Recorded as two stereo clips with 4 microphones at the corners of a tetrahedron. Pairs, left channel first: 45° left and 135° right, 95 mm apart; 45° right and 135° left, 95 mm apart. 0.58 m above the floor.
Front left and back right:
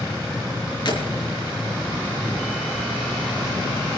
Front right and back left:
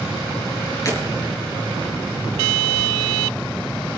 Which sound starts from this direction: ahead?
Breaking glass, at 0.8 s.